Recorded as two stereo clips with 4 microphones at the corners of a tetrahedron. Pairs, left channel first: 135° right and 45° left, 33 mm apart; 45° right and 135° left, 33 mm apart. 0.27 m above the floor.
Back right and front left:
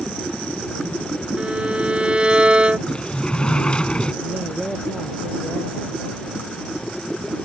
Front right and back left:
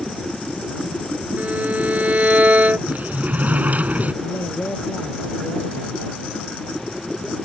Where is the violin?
100° left.